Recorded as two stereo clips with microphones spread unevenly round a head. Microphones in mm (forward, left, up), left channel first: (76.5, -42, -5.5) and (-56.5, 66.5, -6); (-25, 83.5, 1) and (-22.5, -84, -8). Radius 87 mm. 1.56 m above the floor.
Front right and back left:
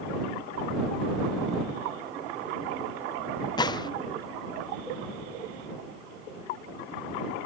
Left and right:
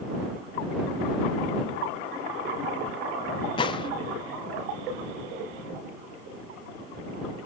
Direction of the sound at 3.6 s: 25° left.